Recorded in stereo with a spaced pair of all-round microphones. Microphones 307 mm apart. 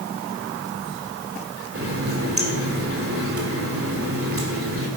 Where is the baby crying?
I don't hear a baby crying.